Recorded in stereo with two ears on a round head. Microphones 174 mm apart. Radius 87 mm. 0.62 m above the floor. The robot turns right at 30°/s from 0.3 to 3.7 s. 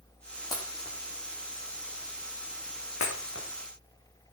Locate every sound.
0.5 s breaking glass: 20° left (ahead or behind), 5 m; by 3.5 s 70° left (ahead or behind), 5 m